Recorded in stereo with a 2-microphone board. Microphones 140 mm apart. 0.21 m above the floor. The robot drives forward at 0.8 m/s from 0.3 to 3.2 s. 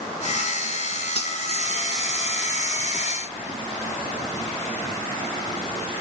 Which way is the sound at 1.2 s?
50° left (ahead or behind).